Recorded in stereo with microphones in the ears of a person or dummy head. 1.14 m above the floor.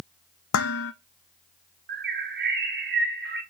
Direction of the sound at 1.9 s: 55° right (ahead or behind).